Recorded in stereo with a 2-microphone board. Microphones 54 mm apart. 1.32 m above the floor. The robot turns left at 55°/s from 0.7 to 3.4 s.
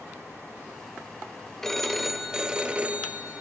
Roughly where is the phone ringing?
Centre.